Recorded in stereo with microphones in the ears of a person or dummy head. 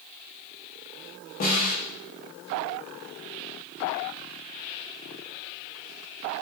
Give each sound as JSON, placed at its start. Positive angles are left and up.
{"t": 1.4, "sound": "a snare drum", "side_deg": 45, "distance_m": 0.7}